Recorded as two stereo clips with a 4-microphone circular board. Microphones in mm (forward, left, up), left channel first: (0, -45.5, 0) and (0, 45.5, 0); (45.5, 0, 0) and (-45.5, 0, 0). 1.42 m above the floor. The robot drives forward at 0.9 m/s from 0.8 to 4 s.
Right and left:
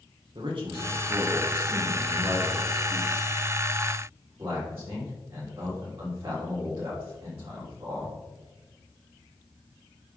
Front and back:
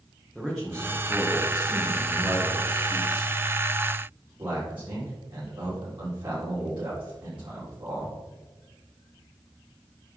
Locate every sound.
0.3 s a man speaking: 90° left, 1.6 m; by 8.2 s 150° left, 3.5 m